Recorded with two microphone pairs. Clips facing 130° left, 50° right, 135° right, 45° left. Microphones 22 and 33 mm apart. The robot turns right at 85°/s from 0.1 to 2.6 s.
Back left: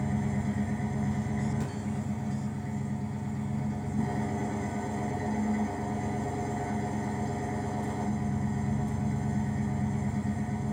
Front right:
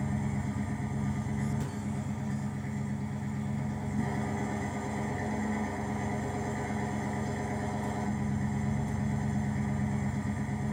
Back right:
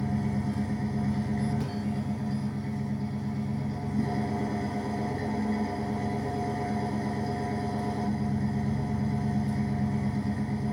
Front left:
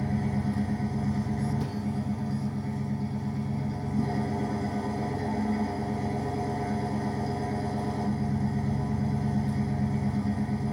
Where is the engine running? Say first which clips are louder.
Back left 3 dB, front left 1 dB; 75° left, 1.8 m; by 10.7 s 75° right, 1.8 m.